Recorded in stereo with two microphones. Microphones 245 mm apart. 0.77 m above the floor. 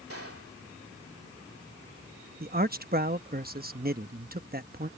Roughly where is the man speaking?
Right.